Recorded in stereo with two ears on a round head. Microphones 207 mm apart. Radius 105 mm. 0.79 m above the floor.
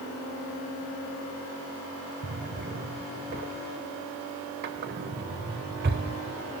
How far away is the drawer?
About 0.9 m.